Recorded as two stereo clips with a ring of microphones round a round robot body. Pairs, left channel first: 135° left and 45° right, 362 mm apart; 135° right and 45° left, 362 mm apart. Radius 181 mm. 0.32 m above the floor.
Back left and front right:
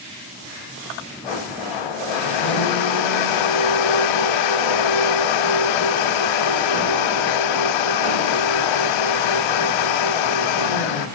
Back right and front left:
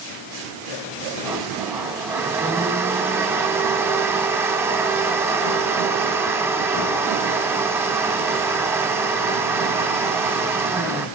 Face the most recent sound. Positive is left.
turn(degrees=130)